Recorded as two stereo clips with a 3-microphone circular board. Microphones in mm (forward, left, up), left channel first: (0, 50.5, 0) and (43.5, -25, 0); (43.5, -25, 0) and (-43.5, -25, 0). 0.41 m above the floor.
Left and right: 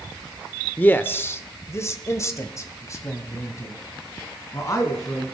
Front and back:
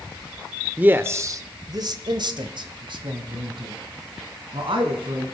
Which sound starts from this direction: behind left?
A man speaking, at 0.8 s.